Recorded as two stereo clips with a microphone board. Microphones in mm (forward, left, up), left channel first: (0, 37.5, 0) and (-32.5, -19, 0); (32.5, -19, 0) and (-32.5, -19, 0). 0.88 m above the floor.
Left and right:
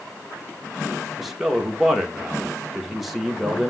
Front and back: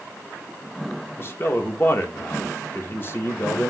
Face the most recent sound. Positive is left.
turn(degrees=-30)